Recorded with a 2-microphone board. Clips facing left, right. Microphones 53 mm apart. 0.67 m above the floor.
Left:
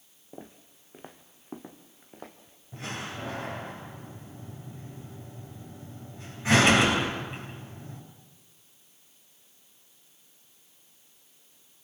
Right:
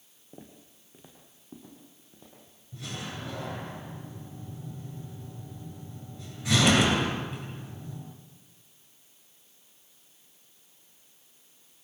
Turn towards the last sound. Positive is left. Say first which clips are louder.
# left 2 dB
turn(degrees=35)  # may be behind; listen again after turning